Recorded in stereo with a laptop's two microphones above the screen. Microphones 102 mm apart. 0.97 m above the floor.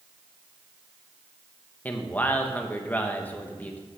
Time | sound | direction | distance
1.9 | a man speaking | 15° left (ahead or behind) | 0.9 m